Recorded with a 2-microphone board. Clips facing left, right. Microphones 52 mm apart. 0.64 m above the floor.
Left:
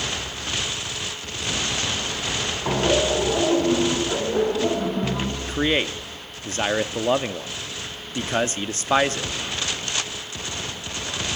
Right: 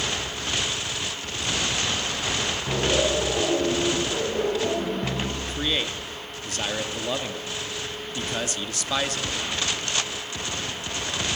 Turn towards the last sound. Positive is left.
turn(degrees=35)  # may be behind; listen again after turning